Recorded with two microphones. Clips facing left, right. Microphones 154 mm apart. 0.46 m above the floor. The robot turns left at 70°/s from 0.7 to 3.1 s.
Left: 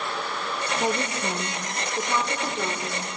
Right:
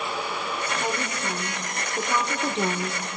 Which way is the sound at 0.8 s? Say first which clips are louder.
Left 3 dB; 90° left.